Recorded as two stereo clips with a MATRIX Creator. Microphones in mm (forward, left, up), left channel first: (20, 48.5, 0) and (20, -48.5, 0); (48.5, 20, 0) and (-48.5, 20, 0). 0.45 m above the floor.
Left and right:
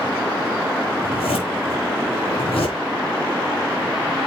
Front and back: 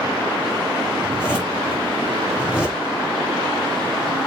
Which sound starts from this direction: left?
A zipper, at 1.0 s.